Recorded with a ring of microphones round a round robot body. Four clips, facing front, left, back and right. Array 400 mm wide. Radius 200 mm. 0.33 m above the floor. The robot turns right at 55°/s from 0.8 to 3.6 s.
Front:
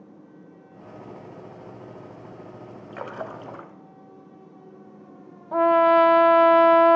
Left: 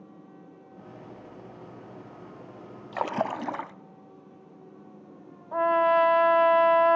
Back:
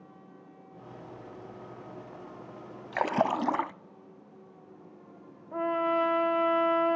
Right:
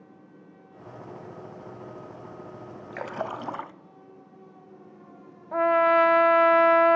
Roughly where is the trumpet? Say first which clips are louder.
Right 1 dB, front 11 dB; ahead.